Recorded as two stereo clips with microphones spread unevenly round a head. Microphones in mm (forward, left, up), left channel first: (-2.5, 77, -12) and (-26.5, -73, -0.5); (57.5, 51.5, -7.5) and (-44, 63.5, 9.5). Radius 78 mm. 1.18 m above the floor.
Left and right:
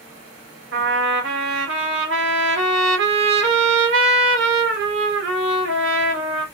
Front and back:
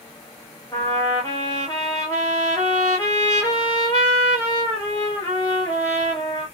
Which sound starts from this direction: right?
A trumpet, at 0.7 s.